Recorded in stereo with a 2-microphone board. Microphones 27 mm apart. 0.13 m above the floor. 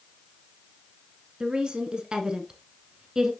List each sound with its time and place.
1.4 s a woman speaking: 35° right (ahead or behind), 1.6 m; by 3.3 s 20° right (ahead or behind), 1.6 m